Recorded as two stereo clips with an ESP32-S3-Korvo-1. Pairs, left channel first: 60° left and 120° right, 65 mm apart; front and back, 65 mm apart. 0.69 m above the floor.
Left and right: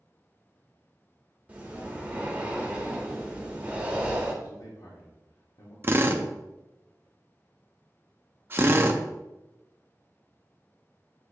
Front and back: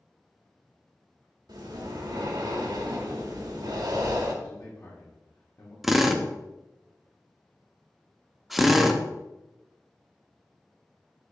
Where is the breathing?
170° left, 1.5 m.